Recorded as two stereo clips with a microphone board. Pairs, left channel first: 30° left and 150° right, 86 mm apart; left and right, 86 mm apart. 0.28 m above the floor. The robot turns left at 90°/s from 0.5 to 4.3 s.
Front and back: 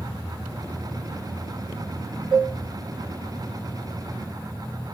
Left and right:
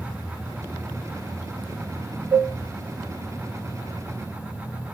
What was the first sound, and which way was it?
Dishes clattering, 135° right.